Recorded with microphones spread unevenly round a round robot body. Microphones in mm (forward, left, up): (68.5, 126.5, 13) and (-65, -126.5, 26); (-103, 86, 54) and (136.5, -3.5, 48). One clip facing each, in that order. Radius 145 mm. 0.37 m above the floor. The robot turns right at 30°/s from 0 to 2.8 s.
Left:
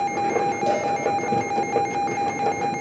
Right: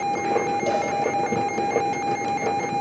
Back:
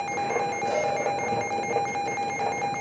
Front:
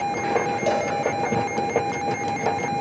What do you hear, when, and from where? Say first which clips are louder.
0.7 s a cowbell: left 1 dB, front 4 dB; 30° right, 4 m; by 0.9 s 20° right, 4 m